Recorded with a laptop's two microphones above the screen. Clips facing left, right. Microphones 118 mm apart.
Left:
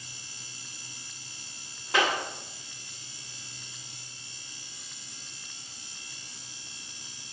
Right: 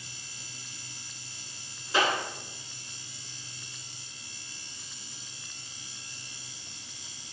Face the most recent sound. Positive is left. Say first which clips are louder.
# even
turn(degrees=70)  # may be behind; listen again after turning